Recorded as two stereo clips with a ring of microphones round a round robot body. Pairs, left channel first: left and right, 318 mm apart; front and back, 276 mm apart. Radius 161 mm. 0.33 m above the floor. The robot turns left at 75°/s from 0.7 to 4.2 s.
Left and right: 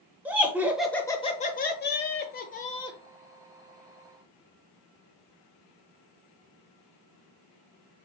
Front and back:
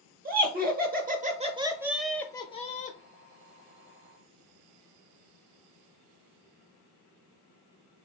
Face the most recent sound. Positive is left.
turn(degrees=-75)